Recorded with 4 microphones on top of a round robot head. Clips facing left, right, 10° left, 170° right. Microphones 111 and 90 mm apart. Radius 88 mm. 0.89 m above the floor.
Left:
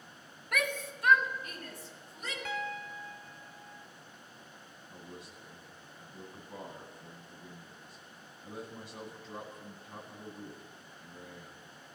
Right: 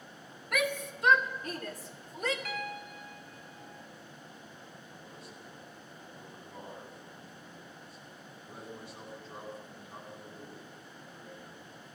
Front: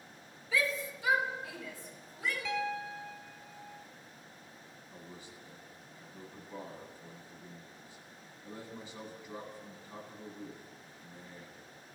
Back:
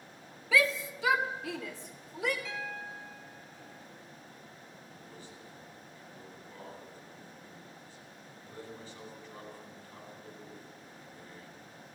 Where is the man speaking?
85° left, 9.5 m.